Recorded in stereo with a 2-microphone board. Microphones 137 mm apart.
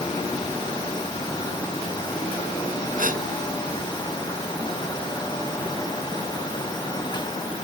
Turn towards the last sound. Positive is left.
turn(degrees=-80)